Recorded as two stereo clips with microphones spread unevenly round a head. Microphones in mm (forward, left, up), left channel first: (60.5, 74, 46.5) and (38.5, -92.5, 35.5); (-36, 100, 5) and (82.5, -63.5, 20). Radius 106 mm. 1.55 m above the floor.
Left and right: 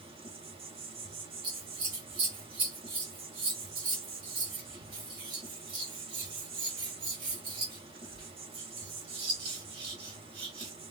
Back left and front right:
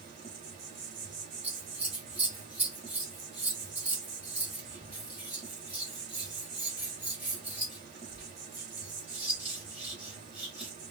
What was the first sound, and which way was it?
An insect, 60° right.